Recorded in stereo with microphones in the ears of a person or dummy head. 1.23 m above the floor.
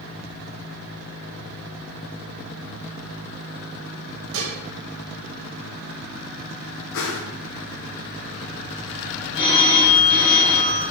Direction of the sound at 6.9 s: 75° left (ahead or behind).